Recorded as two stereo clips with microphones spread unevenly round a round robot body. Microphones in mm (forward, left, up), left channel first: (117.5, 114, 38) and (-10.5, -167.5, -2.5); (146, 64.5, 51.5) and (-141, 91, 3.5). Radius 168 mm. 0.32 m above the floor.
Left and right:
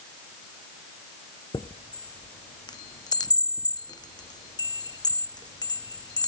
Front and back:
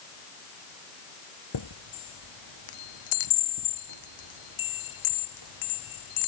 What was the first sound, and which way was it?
A chime, 10° right.